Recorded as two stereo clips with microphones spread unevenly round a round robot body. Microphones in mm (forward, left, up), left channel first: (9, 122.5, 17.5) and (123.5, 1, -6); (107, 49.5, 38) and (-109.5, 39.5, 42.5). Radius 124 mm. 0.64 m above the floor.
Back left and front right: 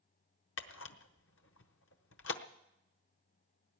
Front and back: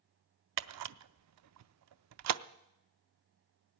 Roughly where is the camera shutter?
Behind.